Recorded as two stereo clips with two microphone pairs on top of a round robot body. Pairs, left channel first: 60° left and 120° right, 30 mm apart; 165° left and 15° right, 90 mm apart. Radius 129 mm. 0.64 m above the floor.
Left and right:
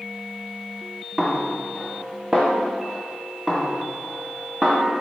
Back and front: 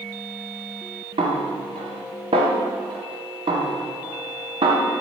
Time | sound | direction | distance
1.2 | a snare drum | 45° right | 1.5 m